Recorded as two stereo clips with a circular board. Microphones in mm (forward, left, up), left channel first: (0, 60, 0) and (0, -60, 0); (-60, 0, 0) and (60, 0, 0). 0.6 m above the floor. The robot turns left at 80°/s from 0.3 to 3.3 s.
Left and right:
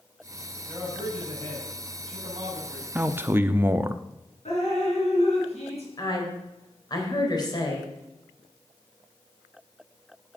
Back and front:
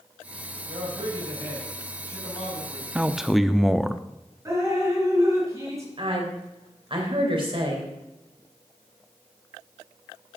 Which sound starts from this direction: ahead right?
A man speaking, at 3.0 s.